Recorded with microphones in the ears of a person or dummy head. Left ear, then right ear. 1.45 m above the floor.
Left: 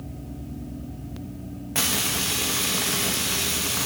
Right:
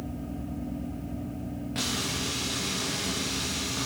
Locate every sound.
1.8 s frying: 30° left (ahead or behind), 1.2 m